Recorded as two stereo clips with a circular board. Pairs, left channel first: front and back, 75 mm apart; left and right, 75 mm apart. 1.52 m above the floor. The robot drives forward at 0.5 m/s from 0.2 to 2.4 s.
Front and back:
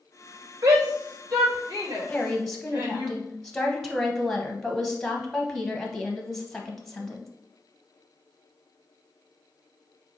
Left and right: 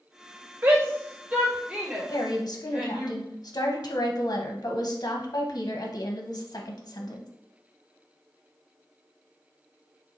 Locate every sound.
0.6 s a shout: 140° right, 1.0 m; by 3.1 s 160° right, 1.8 m
2.1 s a woman speaking: 75° left, 1.0 m; by 7.3 s 85° left, 1.0 m